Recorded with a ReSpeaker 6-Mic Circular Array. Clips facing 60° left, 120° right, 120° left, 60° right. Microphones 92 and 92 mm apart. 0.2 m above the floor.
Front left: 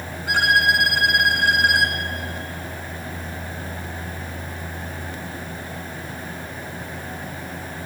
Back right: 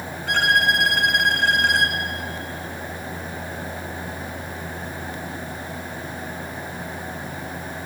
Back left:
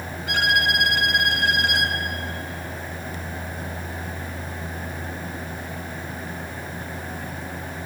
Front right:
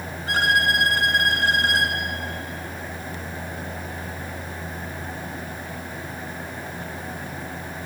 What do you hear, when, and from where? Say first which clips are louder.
0.3 s a violin: front left 1 dB, front right 1 dB; 20° right, 2 m